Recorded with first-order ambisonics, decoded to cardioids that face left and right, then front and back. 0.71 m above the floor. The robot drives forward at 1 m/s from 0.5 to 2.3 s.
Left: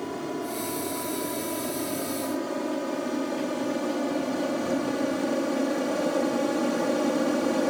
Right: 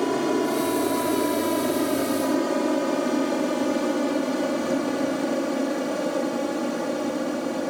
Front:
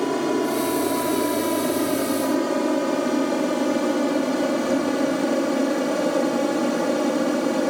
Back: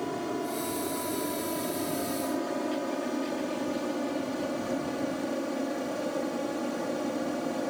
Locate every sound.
0.0 s an aircraft: 45° right; by 7.7 s 15° left